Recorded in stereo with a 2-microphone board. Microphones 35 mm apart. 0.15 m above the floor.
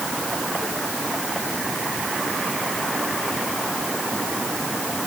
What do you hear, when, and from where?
Only background noise.